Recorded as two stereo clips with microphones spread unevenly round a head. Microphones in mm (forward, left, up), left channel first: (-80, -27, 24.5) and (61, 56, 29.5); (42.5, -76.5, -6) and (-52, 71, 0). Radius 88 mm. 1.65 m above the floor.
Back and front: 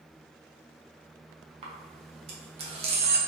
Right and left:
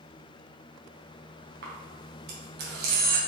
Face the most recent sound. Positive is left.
turn(degrees=85)